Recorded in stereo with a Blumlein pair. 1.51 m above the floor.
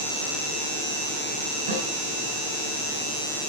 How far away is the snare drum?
About 6 m.